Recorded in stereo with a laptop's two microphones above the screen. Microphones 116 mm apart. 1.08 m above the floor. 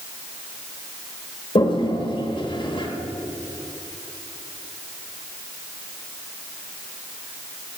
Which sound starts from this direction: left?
A toilet flushing, at 1.6 s.